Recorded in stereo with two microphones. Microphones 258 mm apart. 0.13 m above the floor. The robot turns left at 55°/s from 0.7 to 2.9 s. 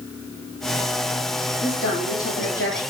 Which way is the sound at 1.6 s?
120° left.